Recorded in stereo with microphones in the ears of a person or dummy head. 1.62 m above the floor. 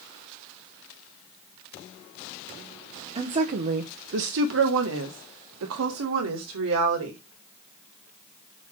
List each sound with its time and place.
3.1 s a woman speaking: 30° right (ahead or behind), 0.9 m; by 7.2 s 75° right (ahead or behind), 2.5 m